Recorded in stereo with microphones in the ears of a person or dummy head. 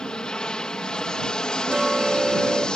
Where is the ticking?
5° right (ahead or behind).